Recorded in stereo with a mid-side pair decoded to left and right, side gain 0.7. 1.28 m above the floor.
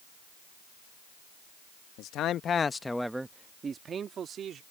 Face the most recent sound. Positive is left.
turn(degrees=-45)